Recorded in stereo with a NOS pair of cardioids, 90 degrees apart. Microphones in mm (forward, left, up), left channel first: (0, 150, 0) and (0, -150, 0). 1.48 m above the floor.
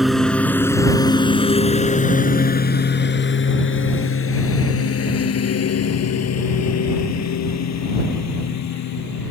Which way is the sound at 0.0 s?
Straight ahead.